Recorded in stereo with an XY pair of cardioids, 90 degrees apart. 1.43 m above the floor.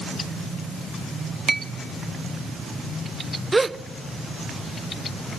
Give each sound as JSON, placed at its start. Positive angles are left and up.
{"t": 1.5, "sound": "a clink", "azimuth_deg": -20, "distance_m": 1.2}
{"t": 3.5, "sound": "a gasp", "azimuth_deg": -25, "distance_m": 0.6}